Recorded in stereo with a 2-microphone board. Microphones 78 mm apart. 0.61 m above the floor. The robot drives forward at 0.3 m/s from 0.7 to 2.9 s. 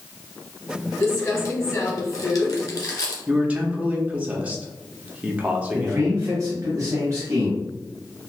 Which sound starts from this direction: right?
A man speaking, at 5.7 s.